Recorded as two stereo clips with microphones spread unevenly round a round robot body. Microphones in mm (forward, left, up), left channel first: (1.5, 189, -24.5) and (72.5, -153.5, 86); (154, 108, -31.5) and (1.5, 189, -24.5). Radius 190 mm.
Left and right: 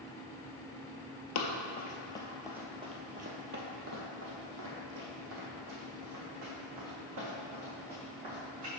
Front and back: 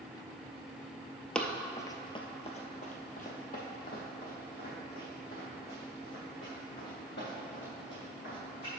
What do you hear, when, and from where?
1.4 s running footsteps: 60° left, 0.8 m; by 8.8 s 70° right, 3.5 m